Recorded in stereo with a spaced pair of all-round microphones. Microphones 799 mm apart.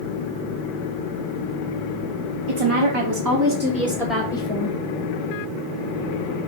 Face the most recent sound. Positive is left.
turn(degrees=10)  # may be behind; listen again after turning